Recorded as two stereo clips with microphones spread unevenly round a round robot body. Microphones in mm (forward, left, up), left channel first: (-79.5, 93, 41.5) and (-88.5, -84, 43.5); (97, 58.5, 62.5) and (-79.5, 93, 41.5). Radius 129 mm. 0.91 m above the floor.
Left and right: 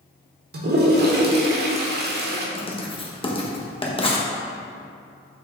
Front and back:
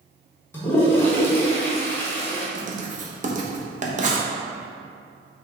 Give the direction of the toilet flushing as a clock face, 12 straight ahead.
3 o'clock.